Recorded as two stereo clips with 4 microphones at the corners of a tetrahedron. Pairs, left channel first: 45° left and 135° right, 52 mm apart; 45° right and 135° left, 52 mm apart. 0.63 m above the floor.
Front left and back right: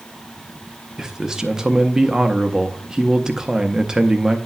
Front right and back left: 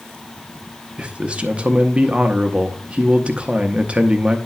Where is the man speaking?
160° left, 0.7 m.